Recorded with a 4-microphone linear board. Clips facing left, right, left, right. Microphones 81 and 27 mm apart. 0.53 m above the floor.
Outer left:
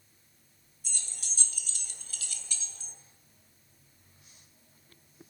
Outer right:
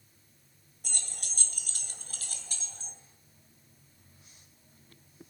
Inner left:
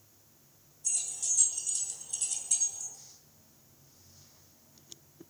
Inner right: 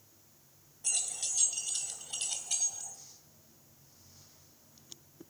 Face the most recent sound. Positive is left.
turn(degrees=-35)  # may be behind; listen again after turning